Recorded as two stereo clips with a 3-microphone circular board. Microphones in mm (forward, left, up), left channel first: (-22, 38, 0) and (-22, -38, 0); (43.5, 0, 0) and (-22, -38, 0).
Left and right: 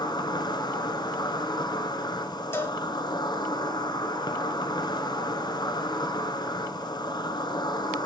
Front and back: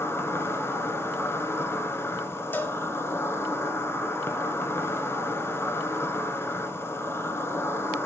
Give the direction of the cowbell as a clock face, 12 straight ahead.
10 o'clock.